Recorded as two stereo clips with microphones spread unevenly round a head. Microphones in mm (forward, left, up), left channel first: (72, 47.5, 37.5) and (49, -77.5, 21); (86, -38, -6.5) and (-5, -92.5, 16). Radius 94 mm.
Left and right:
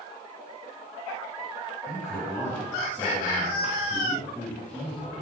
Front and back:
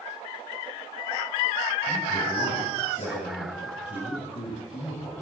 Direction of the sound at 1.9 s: 10° left.